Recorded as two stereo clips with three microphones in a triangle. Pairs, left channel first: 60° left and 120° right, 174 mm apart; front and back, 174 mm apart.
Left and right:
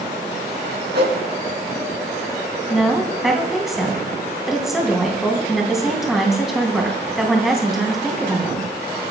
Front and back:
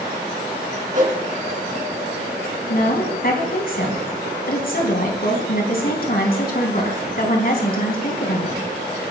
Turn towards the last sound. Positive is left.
turn(degrees=-30)